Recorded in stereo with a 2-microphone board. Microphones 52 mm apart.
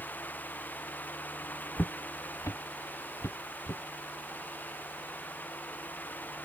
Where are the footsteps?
30° left (ahead or behind); by 3.8 s 70° left (ahead or behind).